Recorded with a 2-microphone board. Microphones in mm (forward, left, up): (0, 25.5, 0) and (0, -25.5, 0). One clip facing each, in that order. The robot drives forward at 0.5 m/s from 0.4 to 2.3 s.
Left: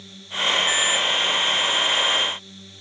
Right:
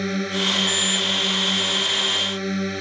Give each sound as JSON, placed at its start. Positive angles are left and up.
{"t": 0.0, "sound": "a drone", "side_deg": -65}